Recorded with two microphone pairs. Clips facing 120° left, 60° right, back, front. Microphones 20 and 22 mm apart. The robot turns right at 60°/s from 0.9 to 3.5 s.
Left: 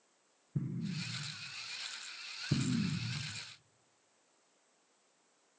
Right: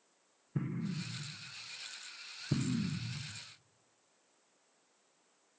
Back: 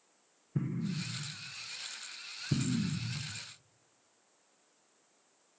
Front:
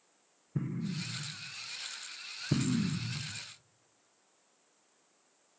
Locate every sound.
0.6 s an explosion: 90° right, 0.6 m; by 3.4 s 60° left, 0.6 m